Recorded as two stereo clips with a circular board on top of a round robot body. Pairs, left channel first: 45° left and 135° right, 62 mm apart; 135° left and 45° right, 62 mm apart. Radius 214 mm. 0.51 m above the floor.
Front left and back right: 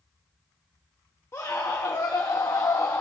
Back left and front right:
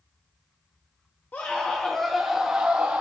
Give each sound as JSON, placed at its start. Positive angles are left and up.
{"t": 1.3, "sound": "a scream", "azimuth_deg": 80, "distance_m": 1.7}